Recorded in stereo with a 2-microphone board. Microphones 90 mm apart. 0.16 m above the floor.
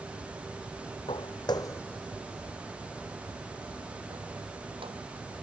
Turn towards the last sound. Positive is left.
turn(degrees=-75)  # may be behind; listen again after turning